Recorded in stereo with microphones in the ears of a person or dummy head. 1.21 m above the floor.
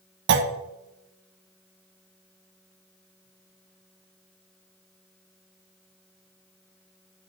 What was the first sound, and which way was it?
A clunk, 60° right (ahead or behind).